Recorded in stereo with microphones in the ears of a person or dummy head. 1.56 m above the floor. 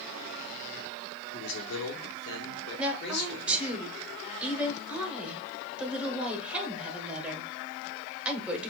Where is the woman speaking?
5° right (ahead or behind), 1.0 m.